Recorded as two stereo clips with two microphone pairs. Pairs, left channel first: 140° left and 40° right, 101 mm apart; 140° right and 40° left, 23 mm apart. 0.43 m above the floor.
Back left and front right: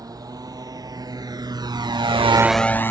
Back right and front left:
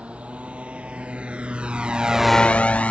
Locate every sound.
0.0 s a motorcycle: 10° left; by 2.9 s 155° right